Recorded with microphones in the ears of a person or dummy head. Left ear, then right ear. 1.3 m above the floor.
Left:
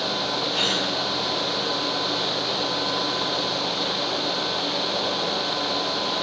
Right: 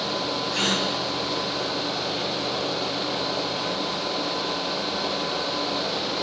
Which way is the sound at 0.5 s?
70° right (ahead or behind).